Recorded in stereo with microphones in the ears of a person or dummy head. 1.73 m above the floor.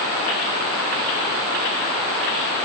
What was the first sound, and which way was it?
Only background noise.